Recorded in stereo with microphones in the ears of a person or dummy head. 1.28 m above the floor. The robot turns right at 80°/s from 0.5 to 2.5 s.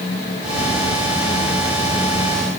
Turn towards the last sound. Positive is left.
No sound to turn to.